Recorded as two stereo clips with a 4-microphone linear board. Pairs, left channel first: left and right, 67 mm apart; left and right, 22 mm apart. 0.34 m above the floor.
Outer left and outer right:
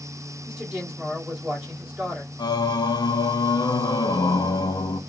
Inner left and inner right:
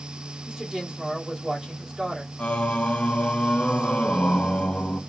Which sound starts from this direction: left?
Singing, at 2.4 s.